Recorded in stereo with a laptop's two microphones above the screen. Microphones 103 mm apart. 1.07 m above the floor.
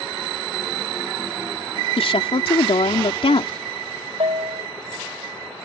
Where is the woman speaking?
65° left (ahead or behind).